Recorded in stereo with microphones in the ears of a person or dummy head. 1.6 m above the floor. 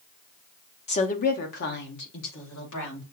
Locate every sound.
0.9 s a woman speaking: 30° left (ahead or behind), 0.7 m; by 3.0 s 75° left (ahead or behind), 2.5 m